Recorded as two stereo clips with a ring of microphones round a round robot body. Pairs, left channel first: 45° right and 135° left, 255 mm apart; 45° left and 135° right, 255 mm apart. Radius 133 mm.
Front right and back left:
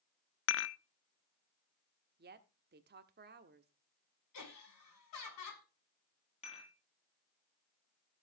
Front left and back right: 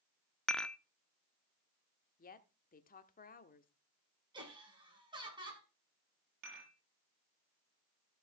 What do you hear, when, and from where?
0.5 s dishes clattering: 40° right, 0.6 m
2.2 s a woman speaking: 95° left, 1.3 m
4.3 s laughter: 60° right, 6 m
6.4 s dishes clattering: 110° right, 7.5 m